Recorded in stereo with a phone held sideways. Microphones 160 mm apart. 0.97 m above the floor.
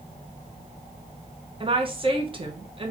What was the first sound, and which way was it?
A woman speaking, 35° right (ahead or behind).